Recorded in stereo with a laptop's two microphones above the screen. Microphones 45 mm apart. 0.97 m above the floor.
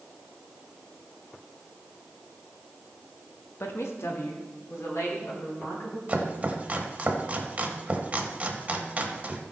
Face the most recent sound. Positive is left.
turn(degrees=-30)  # may be behind; listen again after turning